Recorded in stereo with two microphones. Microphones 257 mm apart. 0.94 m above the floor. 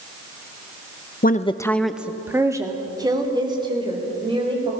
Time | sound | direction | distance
1.2 | a woman speaking | 35° left (ahead or behind) | 0.7 m